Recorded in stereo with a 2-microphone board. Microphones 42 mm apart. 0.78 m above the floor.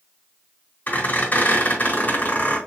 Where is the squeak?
45° left (ahead or behind), 3.5 m.